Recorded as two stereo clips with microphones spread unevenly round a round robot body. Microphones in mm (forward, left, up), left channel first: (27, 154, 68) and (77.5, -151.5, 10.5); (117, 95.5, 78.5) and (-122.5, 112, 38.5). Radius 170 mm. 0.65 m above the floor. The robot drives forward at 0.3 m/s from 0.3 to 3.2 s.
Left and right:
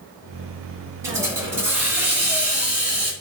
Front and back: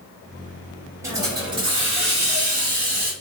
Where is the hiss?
135° right, 1.1 m; by 3.1 s 155° right, 1.5 m.